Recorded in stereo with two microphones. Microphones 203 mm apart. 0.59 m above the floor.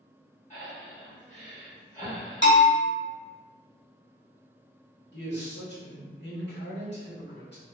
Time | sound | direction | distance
0.5 | breathing | 35° left (ahead or behind) | 2.0 m
2.4 | a bell | 65° left (ahead or behind) | 1.1 m
5.1 | a man speaking | 55° left (ahead or behind) | 1.3 m